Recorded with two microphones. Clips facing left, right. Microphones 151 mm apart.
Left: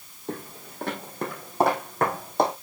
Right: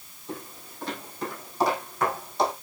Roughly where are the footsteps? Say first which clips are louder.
Left 3 dB; left.